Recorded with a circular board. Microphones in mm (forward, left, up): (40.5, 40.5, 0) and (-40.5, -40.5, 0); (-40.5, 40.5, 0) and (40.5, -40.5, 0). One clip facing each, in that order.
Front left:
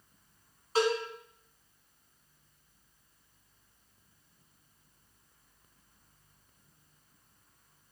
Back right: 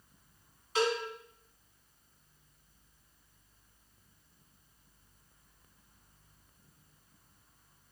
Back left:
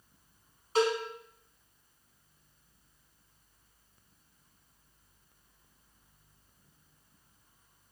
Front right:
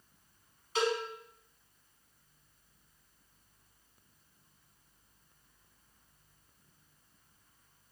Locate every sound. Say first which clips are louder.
0.8 s a cowbell: front left 2 dB, back left 4 dB; 90° left, 1.5 m